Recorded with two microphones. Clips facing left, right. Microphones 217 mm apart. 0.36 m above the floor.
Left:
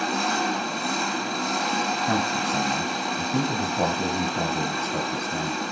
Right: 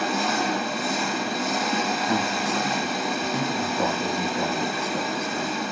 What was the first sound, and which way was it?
An engine running, 5° right (ahead or behind).